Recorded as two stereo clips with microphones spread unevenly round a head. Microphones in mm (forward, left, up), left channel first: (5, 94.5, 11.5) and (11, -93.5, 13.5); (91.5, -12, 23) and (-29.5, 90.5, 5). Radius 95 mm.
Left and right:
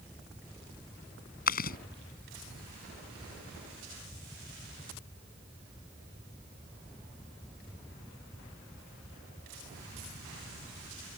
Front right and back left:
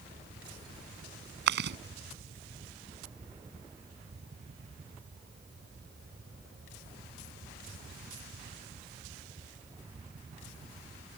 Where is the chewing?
135° left.